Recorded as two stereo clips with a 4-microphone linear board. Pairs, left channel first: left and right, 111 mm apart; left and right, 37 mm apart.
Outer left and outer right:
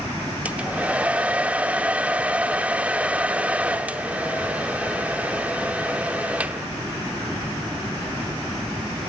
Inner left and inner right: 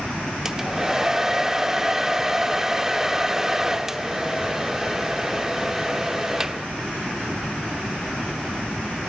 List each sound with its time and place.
0.5 s a hair dryer: 15° right (ahead or behind), 0.8 m